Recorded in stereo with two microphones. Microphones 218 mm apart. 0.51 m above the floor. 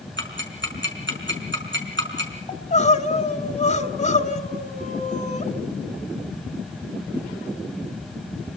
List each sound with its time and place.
0.2 s ticking: 55° right (ahead or behind), 5 m
2.5 s crying: 30° left (ahead or behind), 1.7 m